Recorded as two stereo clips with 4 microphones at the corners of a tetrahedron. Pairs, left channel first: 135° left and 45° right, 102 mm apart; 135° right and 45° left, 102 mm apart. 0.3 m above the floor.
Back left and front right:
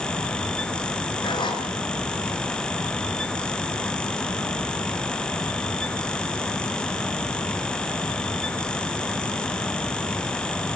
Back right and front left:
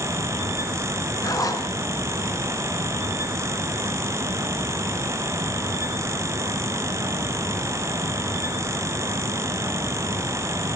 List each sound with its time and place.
1.2 s a zipper: 170° left, 4 m